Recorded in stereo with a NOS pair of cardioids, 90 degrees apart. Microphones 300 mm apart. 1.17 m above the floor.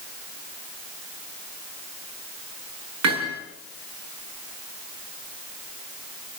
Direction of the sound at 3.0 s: 65° right.